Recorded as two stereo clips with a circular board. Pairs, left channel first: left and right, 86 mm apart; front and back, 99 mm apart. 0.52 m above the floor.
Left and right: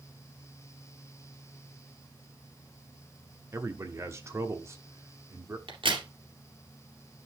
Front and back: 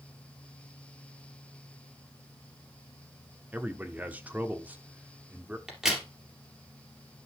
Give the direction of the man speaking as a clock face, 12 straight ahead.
4 o'clock.